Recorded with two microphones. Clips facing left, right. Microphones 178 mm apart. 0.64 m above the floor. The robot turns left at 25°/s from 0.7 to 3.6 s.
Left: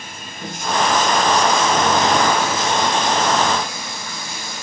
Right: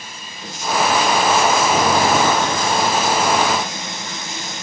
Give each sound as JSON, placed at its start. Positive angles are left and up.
{"t": 0.0, "sound": "running water", "azimuth_deg": 55, "distance_m": 3.5}